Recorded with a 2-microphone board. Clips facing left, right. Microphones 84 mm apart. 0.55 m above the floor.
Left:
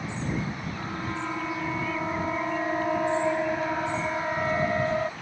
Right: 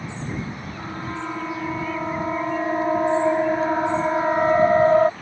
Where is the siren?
10° right (ahead or behind); by 5.1 s 50° right (ahead or behind).